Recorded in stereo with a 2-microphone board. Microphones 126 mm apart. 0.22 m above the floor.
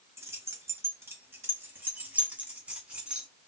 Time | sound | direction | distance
0.2 | keys jangling | 20° right (ahead or behind) | 1.0 m